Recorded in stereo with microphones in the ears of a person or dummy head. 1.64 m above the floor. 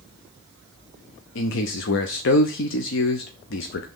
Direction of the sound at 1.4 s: 65° left (ahead or behind).